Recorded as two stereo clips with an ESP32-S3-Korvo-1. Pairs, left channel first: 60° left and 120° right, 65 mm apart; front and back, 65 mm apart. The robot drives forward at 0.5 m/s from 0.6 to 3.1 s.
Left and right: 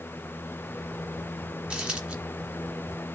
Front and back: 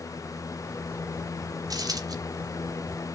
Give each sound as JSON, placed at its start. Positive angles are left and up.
{"t": 1.7, "sound": "a dropped coin", "azimuth_deg": 160, "distance_m": 1.9}